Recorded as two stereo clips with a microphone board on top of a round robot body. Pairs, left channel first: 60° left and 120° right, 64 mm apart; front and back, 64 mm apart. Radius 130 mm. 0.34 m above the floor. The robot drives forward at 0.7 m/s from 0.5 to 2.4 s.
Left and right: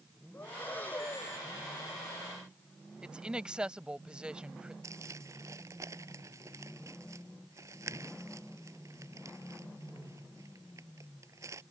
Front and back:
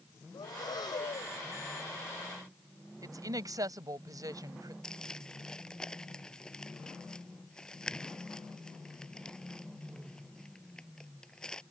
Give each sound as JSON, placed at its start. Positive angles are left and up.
{"t": 0.3, "sound": "breathing", "azimuth_deg": -5}
{"t": 3.0, "sound": "a woman speaking", "azimuth_deg": 165}
{"t": 4.8, "sound": "crumpling", "azimuth_deg": -80}